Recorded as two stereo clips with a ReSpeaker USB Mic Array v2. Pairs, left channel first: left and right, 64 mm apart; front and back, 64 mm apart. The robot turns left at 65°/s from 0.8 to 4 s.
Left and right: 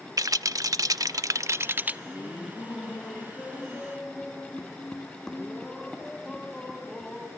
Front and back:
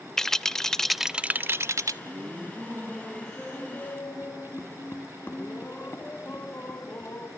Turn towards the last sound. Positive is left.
turn(degrees=15)